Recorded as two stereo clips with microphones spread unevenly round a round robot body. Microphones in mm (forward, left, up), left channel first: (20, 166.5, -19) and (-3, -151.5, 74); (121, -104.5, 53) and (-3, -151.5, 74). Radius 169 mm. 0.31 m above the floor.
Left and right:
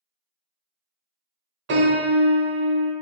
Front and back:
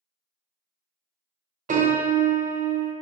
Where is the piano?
160° right, 0.5 m.